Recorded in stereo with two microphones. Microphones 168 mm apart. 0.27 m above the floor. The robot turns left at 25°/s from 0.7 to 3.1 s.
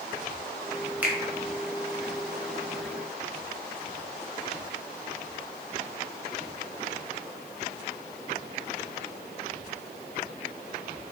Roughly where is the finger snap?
Centre.